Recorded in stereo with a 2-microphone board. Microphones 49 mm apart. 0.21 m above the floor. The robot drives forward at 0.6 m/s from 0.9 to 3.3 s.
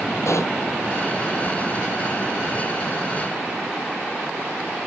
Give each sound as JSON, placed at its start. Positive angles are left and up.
{"t": 0.2, "sound": "a pop", "side_deg": 80}